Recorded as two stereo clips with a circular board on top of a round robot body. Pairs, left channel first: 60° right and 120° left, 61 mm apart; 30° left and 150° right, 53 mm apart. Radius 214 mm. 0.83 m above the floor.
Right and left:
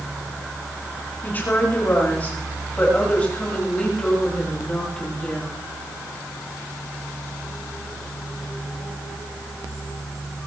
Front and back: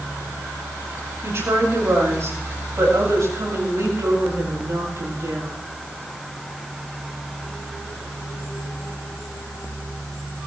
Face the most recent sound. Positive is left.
turn(degrees=-140)